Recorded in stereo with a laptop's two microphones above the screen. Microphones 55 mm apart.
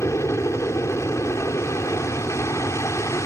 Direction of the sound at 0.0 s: 65° left (ahead or behind).